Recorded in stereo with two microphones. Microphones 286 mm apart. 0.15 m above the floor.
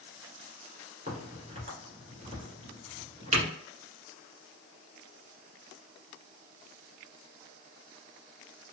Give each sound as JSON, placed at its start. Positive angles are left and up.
{"t": 1.1, "sound": "a crack", "side_deg": -25, "distance_m": 1.4}